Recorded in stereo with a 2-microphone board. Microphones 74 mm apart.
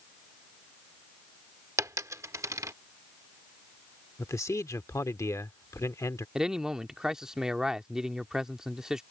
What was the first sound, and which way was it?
A dropped coin, 45° right (ahead or behind).